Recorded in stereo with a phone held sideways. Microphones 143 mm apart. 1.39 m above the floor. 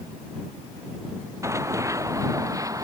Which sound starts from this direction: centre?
Running footsteps, at 1.4 s.